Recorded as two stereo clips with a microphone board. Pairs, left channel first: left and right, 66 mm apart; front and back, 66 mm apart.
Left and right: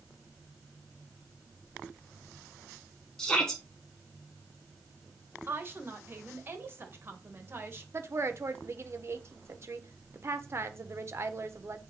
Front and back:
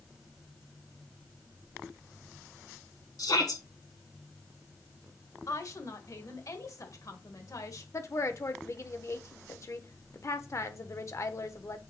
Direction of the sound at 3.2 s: 10° left.